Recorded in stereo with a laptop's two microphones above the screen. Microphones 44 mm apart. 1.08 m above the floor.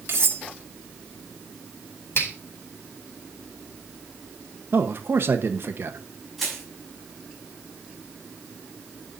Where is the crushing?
Centre (ahead or behind), 6 m.